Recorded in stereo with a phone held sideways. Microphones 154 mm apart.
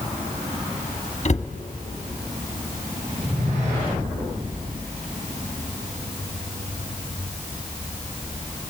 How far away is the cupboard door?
About 1.5 m.